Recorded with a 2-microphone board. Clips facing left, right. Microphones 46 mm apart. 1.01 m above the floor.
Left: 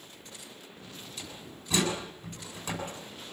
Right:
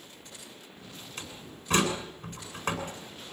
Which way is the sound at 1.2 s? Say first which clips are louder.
Right 1 dB; 50° right (ahead or behind).